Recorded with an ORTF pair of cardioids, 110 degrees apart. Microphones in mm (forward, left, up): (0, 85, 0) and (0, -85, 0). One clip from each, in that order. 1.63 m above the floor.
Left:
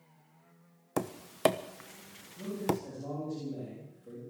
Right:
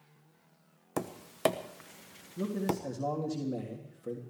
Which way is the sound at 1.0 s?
10° left.